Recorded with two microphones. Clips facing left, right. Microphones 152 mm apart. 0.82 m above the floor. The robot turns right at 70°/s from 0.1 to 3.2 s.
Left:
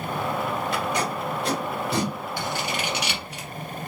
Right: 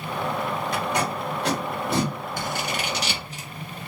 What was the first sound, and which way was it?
Tape being pulled, 40° right (ahead or behind).